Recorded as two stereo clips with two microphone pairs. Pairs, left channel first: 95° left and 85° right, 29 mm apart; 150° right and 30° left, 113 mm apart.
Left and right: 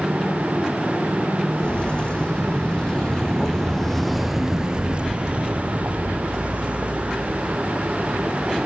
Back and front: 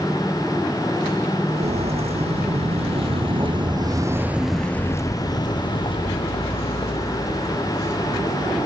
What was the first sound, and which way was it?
Footsteps, 40° left.